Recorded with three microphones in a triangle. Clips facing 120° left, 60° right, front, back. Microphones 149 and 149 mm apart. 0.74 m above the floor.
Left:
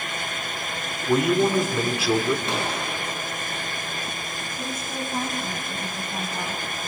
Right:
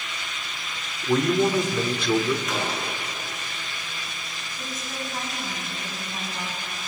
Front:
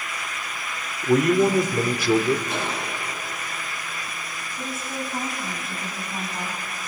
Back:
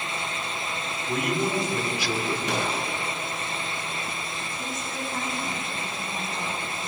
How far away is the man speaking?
About 1.9 m.